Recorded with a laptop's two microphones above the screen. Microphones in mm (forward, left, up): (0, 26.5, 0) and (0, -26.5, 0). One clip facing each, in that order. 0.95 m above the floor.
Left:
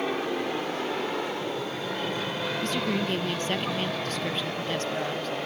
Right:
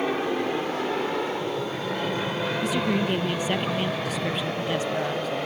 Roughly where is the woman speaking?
Centre.